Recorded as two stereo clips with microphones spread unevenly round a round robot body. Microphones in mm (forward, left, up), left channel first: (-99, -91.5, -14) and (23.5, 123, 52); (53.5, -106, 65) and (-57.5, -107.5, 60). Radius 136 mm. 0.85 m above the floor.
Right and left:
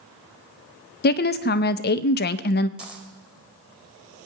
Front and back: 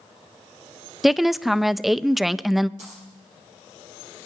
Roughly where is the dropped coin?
Behind left.